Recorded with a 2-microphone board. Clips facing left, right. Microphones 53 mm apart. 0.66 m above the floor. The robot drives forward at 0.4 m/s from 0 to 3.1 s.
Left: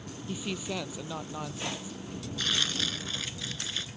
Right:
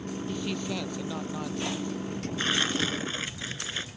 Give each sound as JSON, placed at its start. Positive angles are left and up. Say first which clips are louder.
{"t": 0.3, "sound": "a woman speaking", "louder": "right 1 dB", "side_deg": 5}
{"t": 2.4, "sound": "tearing paper", "louder": "right 4 dB", "side_deg": -30}